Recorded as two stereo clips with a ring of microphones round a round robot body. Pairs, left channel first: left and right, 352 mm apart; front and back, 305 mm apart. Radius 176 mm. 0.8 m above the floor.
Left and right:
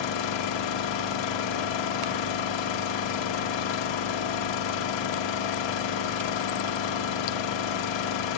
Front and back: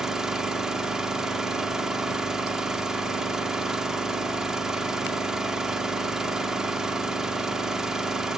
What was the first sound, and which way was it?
An engine running, 90° left.